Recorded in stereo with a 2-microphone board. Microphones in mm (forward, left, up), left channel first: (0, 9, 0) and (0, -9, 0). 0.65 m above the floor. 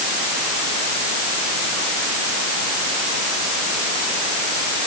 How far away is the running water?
No running water in this recording.